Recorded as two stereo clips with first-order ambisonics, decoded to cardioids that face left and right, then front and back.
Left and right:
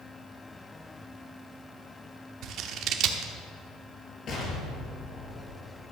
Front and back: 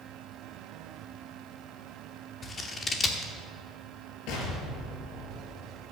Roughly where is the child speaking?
No child speaking in this recording.